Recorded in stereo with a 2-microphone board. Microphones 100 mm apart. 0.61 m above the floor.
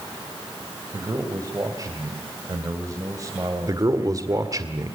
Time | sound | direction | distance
0.9 | a man speaking | 35° right (ahead or behind) | 2.5 m
3.7 | a man speaking | 35° right (ahead or behind) | 1.8 m